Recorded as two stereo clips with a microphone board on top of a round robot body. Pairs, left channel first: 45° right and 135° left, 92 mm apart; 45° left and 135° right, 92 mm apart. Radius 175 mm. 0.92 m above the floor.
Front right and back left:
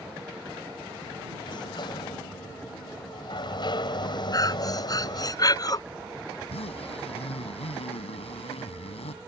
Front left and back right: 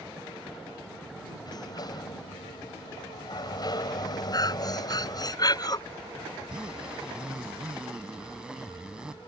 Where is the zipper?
55° right.